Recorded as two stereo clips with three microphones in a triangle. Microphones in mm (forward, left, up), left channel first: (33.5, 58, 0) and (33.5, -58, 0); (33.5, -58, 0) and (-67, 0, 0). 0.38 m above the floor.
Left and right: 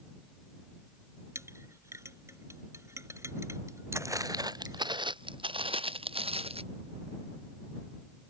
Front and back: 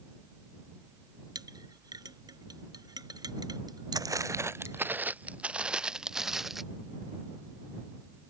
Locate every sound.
1.4 s a clink: 155° right
3.9 s footsteps: 155° right; by 6.6 s 125° right